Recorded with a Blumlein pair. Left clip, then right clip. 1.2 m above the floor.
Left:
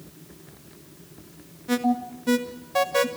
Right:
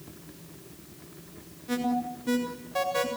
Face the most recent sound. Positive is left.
turn(degrees=20)